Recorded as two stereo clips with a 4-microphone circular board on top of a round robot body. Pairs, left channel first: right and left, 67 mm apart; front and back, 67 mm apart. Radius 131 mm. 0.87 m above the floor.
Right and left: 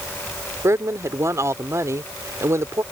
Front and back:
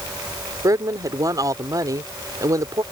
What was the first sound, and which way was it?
A woman speaking, 140° left.